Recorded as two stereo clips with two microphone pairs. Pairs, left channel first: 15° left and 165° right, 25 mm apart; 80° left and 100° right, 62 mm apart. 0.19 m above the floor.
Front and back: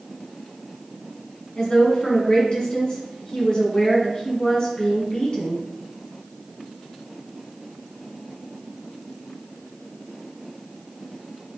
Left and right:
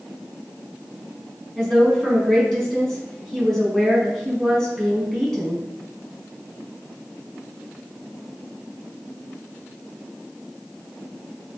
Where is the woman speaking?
Straight ahead, 1.6 m.